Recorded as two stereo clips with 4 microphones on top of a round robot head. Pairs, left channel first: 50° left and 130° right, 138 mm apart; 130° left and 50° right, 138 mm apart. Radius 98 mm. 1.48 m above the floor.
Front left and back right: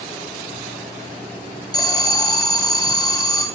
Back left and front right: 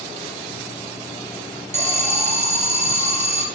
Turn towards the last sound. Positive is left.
turn(degrees=-10)